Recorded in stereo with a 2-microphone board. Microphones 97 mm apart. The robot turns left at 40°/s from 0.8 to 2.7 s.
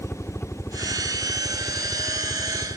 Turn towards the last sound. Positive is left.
turn(degrees=65)  # may be behind; listen again after turning